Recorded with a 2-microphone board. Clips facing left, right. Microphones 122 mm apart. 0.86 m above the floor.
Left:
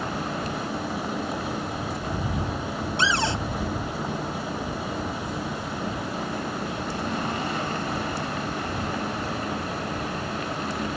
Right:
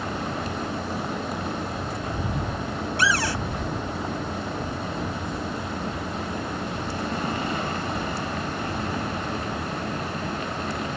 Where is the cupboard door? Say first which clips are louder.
Even; 25° left (ahead or behind).